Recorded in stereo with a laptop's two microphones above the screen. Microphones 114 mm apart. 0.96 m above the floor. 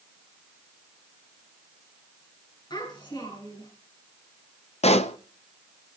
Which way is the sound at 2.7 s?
40° left (ahead or behind).